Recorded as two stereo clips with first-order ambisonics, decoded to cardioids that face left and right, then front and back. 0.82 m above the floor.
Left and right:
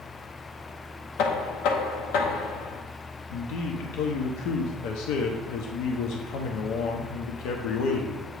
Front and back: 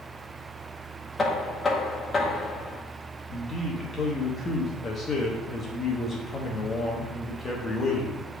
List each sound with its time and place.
1.2 s knocking: 75° left, 0.8 m
3.3 s a man speaking: 70° left, 0.8 m